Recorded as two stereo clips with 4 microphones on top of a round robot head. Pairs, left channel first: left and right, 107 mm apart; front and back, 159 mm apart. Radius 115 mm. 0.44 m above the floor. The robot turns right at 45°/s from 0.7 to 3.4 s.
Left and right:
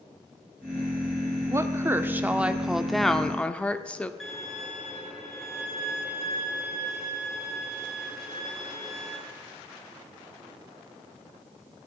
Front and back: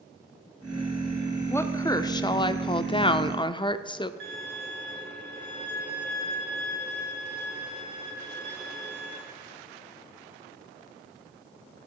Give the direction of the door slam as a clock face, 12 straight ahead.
I don't hear a door slam.